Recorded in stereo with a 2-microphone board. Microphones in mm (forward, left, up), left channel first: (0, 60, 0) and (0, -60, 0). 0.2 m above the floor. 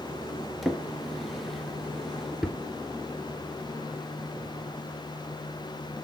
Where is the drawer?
Centre (ahead or behind), 1.6 m.